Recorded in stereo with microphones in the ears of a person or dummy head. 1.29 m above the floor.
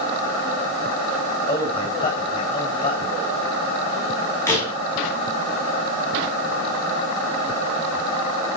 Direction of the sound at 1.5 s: 30° left (ahead or behind).